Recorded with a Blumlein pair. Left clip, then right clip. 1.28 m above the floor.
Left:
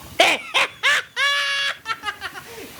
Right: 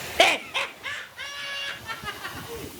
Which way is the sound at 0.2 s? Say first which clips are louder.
Left 4 dB; 5° left.